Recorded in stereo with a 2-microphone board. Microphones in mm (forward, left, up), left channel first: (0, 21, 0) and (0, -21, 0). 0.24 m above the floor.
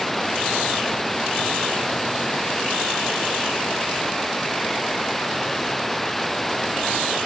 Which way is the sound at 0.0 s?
5° left (ahead or behind).